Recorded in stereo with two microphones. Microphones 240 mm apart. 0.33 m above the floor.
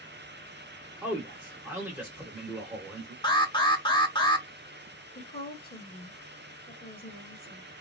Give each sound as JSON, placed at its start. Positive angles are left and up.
{"t": 1.0, "sound": "a man speaking", "side_deg": -10, "distance_m": 0.9}
{"t": 3.2, "sound": "an alarm", "side_deg": 20, "distance_m": 0.8}
{"t": 5.2, "sound": "a woman speaking", "side_deg": 35, "distance_m": 1.0}